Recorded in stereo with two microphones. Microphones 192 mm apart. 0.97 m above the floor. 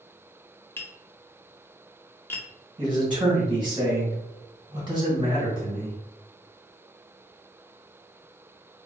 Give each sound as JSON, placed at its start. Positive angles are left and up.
{"t": 0.8, "sound": "tapping", "side_deg": 15, "distance_m": 0.6}
{"t": 2.8, "sound": "a man speaking", "side_deg": -25, "distance_m": 1.6}